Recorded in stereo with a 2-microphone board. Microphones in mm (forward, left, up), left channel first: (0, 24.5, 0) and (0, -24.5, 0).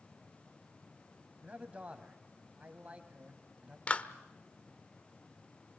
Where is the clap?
25° left (ahead or behind), 1.0 m.